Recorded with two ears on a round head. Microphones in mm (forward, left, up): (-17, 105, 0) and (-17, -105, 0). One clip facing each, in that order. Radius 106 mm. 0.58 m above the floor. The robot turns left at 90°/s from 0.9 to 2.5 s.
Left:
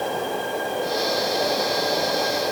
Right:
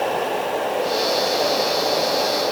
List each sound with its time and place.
Only background noise.